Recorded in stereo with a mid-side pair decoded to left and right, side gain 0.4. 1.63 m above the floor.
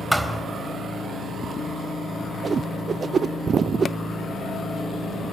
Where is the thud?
Straight ahead, 4 m.